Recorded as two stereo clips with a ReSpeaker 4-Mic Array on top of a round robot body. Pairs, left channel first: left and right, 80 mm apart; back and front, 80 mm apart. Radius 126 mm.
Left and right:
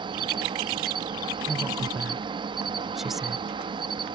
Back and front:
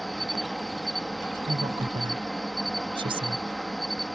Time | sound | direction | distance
0.0 | an insect | 90° right | ?
1.5 | a woman speaking | 5° right | ?